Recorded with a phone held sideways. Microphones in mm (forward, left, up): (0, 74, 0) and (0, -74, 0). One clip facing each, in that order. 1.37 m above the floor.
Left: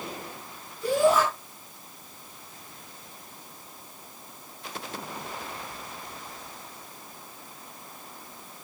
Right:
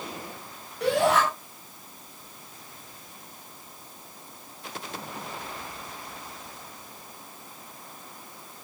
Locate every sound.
0.8 s a shout: 80° right, 9 m